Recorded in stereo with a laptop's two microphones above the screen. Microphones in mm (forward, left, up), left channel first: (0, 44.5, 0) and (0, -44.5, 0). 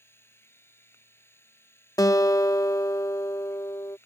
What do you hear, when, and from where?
0.0 s a machine running: 25° left (ahead or behind)
2.0 s a guitar: 40° left (ahead or behind)